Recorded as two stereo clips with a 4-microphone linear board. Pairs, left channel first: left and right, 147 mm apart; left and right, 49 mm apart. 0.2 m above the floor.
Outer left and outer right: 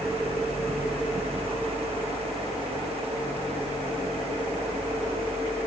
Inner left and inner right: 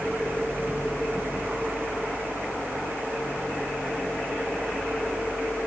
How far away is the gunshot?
I don't hear a gunshot.